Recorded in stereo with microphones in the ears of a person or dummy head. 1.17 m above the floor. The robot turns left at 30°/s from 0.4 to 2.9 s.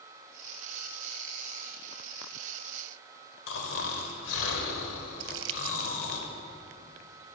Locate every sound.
3.5 s snoring: 75° left (ahead or behind), 2 m
5.2 s crumpling: 85° right, 0.9 m